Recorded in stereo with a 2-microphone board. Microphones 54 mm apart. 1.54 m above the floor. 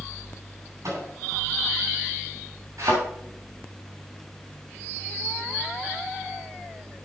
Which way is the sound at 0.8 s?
70° right (ahead or behind).